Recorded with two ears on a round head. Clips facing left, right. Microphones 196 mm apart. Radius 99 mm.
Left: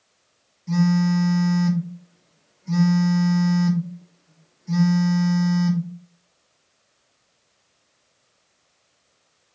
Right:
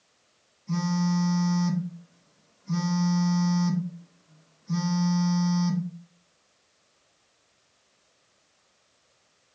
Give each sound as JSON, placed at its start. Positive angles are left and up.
{"t": 0.7, "sound": "a phone buzzing", "side_deg": 50, "distance_m": 3.0}